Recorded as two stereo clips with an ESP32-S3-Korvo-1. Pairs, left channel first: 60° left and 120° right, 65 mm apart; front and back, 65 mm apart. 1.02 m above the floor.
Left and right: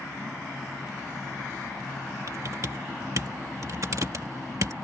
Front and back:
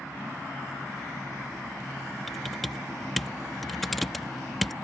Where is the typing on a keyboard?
90° right.